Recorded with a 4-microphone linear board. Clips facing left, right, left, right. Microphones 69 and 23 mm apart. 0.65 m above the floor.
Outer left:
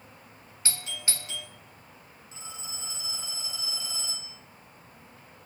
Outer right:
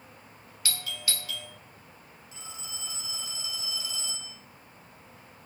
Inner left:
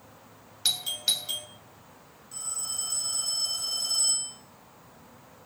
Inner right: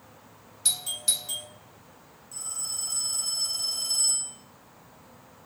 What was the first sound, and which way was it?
A doorbell, 30° left (ahead or behind).